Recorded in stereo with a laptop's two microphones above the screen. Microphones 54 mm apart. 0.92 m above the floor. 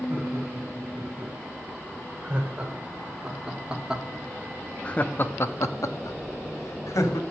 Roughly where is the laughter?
Right.